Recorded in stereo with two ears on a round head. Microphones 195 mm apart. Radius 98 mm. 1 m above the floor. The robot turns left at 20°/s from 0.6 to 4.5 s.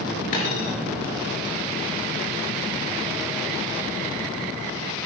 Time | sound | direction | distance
0.3 | a dropped coin | 35° left (ahead or behind) | 4 m